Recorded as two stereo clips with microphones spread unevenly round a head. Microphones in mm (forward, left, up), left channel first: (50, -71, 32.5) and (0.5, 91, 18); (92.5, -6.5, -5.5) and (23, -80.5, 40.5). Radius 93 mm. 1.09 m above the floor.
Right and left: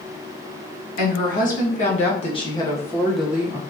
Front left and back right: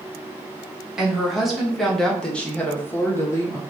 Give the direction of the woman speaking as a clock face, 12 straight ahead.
1 o'clock.